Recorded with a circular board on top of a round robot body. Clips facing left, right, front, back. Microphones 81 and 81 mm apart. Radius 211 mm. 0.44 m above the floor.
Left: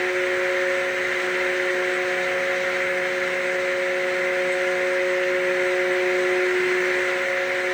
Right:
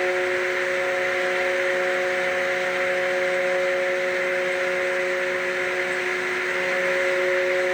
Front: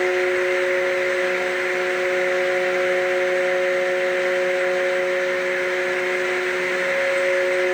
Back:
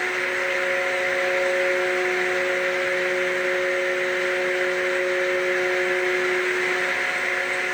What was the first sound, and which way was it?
Only background noise.